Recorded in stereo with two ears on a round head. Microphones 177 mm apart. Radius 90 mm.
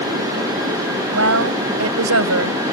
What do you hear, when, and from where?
1.1 s a woman speaking: 70° right (ahead or behind)